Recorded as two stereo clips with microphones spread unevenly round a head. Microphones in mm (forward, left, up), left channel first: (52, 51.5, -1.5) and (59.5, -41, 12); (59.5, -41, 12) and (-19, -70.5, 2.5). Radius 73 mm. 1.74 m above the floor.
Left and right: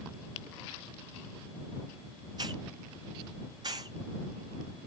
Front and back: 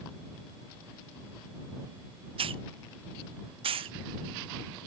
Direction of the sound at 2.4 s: 150° right.